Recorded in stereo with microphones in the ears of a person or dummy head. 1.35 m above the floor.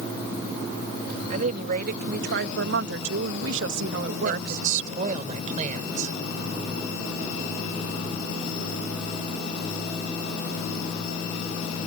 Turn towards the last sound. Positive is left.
turn(degrees=-50)  # may be behind; listen again after turning